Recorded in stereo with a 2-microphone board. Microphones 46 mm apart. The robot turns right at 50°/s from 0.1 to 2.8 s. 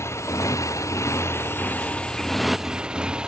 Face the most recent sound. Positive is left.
turn(degrees=-160)